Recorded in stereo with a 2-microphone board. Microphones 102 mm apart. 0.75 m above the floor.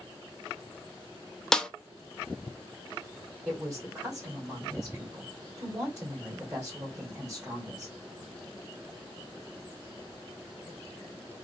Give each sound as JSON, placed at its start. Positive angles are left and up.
{"t": 1.5, "sound": "a snare drum", "side_deg": 5, "distance_m": 0.5}
{"t": 3.5, "sound": "a woman speaking", "side_deg": -20, "distance_m": 2.0}